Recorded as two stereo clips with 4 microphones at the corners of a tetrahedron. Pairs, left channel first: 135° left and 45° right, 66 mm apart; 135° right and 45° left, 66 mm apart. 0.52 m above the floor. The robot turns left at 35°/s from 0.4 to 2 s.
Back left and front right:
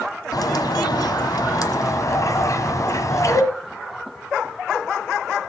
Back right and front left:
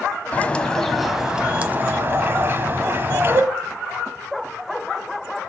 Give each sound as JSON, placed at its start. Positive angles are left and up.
{"t": 0.3, "sound": "a bird", "azimuth_deg": 155, "distance_m": 1.2}